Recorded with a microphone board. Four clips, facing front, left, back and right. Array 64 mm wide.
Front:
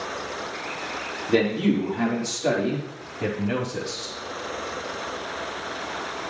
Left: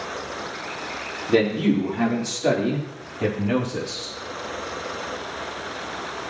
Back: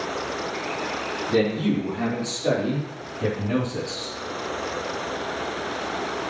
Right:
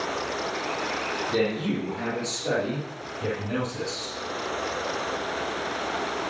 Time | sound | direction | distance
1.3 | a man speaking | 45° left | 5.5 m